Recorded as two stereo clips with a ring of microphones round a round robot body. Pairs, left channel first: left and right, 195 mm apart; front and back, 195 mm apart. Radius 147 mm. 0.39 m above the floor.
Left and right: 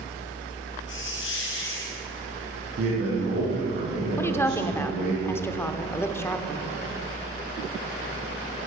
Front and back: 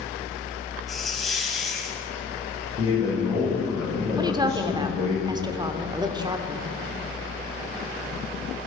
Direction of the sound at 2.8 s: 125° right.